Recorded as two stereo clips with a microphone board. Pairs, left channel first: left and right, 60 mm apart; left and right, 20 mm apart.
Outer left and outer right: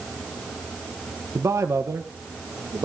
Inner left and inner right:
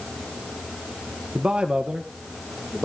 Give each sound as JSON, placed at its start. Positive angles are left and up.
{"t": 1.4, "sound": "a man speaking", "side_deg": -55, "distance_m": 1.1}